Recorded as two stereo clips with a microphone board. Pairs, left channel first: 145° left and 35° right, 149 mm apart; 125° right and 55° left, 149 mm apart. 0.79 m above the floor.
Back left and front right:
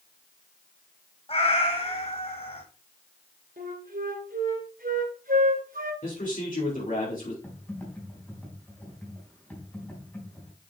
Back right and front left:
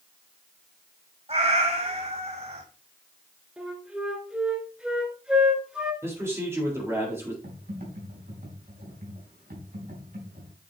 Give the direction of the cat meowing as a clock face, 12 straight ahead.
9 o'clock.